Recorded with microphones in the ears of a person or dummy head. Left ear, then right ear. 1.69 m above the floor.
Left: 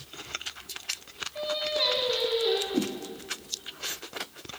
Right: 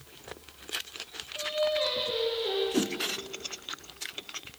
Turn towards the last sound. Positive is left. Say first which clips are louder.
# right 1 dB
turn(degrees=-15)  # may be behind; listen again after turning